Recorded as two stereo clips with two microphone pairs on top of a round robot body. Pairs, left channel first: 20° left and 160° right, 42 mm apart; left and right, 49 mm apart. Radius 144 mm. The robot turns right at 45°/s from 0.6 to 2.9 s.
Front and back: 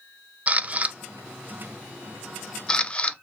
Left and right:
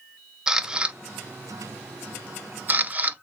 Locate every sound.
0.5 s a camera shutter: 155° right, 0.6 m; by 3.2 s 55° right, 0.6 m